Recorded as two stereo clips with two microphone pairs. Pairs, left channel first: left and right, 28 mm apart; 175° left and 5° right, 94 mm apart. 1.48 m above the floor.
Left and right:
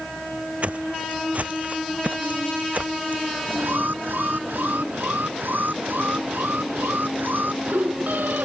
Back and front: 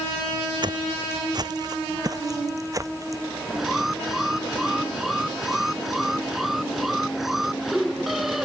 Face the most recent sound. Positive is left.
turn(degrees=-90)